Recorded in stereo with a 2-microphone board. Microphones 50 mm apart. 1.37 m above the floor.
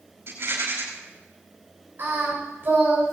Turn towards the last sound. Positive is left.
turn(degrees=-45)  # may be behind; listen again after turning